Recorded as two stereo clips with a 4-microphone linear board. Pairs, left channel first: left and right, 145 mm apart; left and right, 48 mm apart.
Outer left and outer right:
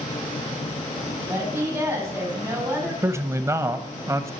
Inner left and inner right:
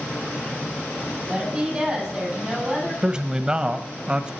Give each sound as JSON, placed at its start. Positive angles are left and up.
{"t": 1.3, "sound": "a woman speaking", "side_deg": -20, "distance_m": 7.0}
{"t": 3.0, "sound": "a man speaking", "side_deg": -20, "distance_m": 0.9}